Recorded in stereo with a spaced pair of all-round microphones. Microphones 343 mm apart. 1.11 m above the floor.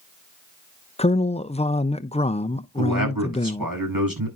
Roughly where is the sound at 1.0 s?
Centre.